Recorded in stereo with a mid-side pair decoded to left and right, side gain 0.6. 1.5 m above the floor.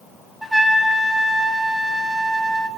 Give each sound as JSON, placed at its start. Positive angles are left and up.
{"t": 0.4, "sound": "a trumpet", "azimuth_deg": -5, "distance_m": 1.2}